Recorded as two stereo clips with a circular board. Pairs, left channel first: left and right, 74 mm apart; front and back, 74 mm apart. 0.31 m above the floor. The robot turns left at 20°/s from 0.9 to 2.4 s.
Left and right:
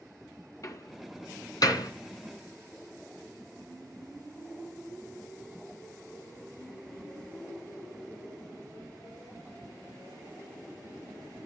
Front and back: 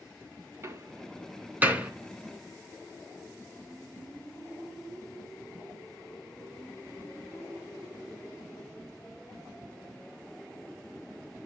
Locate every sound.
0.6 s a door slam: 130° left, 3 m; by 1.9 s 110° left, 3 m